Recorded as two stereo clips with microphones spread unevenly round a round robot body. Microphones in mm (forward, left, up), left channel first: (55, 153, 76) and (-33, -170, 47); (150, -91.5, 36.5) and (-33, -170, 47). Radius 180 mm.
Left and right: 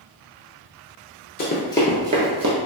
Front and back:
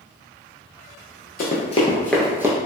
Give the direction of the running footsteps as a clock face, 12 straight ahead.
11 o'clock.